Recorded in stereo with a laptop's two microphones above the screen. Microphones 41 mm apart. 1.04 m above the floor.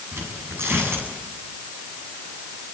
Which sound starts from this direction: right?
Tearing paper, at 0.1 s.